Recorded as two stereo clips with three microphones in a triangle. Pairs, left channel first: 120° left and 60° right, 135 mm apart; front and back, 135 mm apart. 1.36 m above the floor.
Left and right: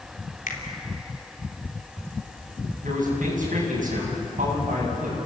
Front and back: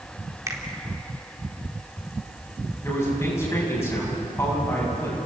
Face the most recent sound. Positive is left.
turn(degrees=-70)